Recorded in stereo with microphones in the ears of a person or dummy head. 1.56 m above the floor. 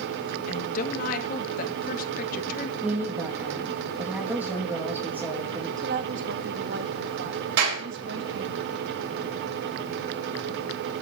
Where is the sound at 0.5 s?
55° left (ahead or behind), 2 m.